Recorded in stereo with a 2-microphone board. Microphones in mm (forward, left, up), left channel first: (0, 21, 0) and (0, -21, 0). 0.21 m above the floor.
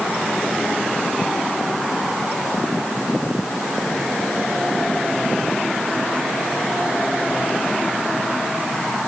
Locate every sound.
Only background noise.